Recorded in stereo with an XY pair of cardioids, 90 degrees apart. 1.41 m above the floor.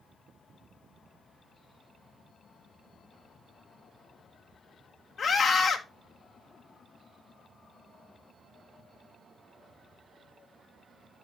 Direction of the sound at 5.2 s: 65° left.